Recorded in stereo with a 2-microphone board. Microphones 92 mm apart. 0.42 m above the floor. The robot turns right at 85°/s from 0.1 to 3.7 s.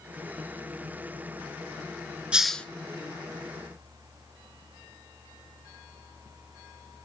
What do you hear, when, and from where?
2.3 s a hiss: 15° right (ahead or behind), 0.9 m; by 2.6 s 15° left (ahead or behind), 0.9 m